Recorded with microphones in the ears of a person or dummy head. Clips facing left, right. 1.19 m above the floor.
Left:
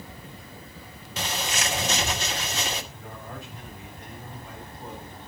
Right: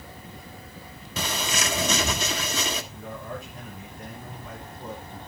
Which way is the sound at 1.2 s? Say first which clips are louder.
Right 1 dB; 80° right.